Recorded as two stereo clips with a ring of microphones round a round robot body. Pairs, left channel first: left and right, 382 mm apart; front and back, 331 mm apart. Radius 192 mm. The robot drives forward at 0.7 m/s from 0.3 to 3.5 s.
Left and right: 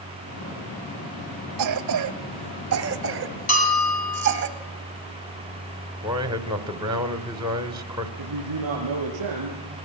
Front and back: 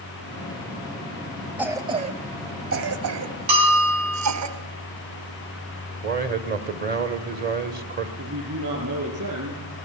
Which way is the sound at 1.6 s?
95° right.